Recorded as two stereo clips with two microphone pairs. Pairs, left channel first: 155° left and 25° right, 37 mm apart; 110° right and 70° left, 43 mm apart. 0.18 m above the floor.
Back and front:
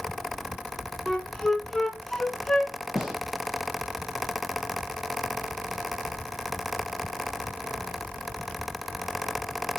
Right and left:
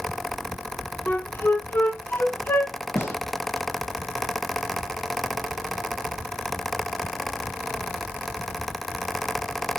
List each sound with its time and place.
1.1 s a flute: 125° right, 0.6 m
3.0 s a gunshot: 100° right, 1.6 m